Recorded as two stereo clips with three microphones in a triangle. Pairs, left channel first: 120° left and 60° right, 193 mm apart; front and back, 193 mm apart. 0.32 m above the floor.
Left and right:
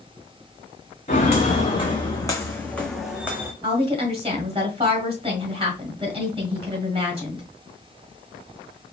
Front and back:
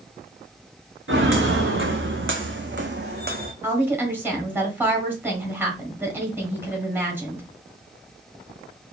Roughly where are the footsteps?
Behind.